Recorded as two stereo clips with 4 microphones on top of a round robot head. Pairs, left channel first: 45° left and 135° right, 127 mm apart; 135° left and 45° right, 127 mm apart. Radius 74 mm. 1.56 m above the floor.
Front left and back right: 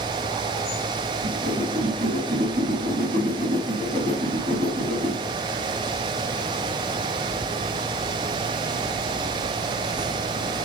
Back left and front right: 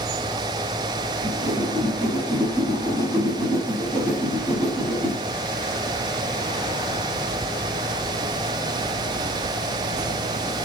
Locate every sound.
1.2 s a whoosh: 120° right, 3.5 m